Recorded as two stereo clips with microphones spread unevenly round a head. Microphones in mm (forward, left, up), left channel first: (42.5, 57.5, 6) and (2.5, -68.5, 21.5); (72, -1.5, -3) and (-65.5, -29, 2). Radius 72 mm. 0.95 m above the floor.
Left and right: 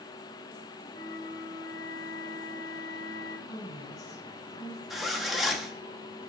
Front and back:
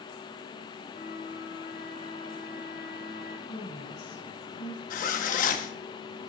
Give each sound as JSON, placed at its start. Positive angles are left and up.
{"t": 0.9, "sound": "a flute", "azimuth_deg": 15, "distance_m": 1.1}
{"t": 3.5, "sound": "a woman speaking", "azimuth_deg": 10, "distance_m": 4.0}
{"t": 4.9, "sound": "a zipper", "azimuth_deg": -20, "distance_m": 0.8}